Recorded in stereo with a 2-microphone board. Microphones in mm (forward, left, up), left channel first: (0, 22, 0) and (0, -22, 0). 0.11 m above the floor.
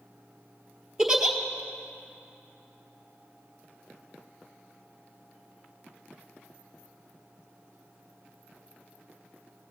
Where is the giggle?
10° right (ahead or behind), 1.0 m.